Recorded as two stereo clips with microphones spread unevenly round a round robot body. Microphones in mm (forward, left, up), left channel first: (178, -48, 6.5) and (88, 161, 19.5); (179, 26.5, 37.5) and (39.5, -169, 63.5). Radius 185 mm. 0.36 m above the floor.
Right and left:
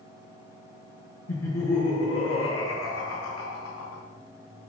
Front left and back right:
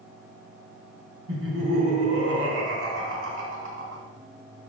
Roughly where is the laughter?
Right.